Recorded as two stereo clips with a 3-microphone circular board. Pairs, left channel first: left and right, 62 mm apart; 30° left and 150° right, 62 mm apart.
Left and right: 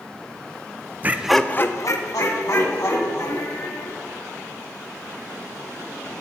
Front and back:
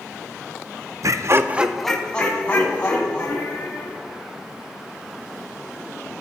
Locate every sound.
1.0 s laughter: 145° right, 0.7 m; by 4.0 s 85° left, 3 m